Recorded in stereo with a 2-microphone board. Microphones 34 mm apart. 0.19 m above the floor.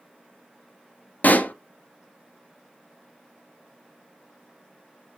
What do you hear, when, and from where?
1.2 s a pop: 60° left (ahead or behind), 0.5 m